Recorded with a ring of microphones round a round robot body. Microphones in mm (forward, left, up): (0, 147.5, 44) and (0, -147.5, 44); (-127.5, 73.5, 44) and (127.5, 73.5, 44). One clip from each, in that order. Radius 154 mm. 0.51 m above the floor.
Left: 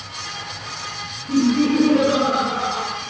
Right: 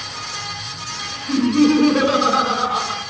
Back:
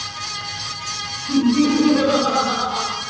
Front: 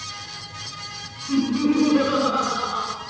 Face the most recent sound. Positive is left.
turn(degrees=-95)